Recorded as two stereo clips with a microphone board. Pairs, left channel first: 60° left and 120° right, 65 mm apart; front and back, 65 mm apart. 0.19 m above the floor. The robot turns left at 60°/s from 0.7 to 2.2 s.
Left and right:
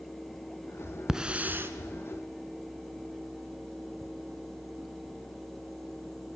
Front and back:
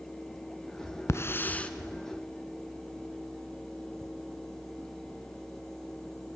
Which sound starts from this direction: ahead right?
A hiss, at 1.1 s.